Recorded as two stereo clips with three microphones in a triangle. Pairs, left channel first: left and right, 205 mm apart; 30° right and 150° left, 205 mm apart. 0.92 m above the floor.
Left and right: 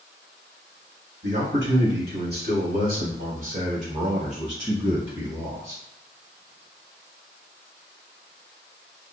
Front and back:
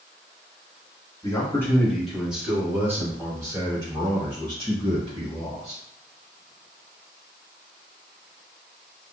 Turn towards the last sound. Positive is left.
turn(degrees=-150)